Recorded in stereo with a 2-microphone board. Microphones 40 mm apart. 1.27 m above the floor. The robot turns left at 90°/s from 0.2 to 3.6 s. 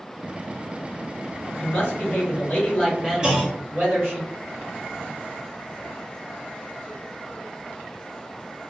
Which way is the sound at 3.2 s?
20° right (ahead or behind).